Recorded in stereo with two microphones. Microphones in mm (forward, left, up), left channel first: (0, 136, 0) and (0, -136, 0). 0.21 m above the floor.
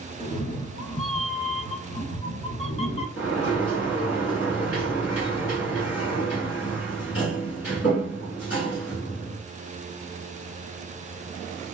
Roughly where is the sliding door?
Left.